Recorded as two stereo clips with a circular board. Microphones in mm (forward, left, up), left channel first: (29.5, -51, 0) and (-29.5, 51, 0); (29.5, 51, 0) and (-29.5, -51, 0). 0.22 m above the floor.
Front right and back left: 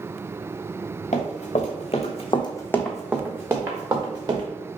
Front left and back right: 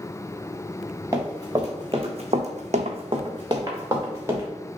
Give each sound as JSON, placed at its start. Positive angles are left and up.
{"t": 1.1, "sound": "running footsteps", "azimuth_deg": -55, "distance_m": 1.6}